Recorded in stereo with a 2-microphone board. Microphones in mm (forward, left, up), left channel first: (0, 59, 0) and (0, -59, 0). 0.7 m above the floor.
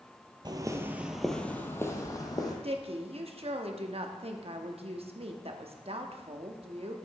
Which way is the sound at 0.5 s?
35° right (ahead or behind).